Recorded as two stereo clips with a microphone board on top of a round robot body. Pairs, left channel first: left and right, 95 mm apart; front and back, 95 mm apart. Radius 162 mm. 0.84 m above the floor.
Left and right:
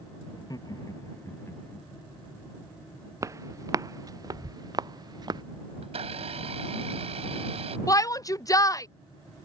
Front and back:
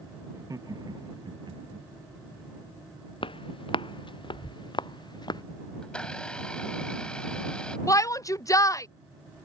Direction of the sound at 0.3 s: 130° left.